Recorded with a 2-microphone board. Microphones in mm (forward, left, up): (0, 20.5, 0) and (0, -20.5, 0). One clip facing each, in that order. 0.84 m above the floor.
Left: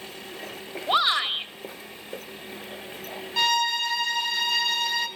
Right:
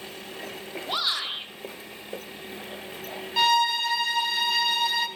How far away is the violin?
About 1.2 m.